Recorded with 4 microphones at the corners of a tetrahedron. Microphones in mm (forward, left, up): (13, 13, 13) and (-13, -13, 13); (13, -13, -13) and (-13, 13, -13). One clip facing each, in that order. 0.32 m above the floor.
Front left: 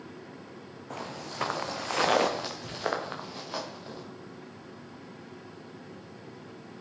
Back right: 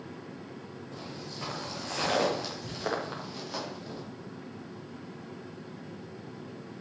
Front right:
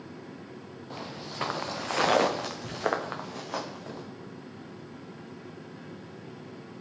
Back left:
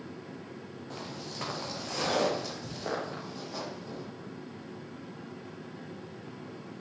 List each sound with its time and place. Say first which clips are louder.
0.9 s footsteps: front left 6 dB, front right 2 dB; 35° left, 1.3 m; by 4.0 s 30° right, 3 m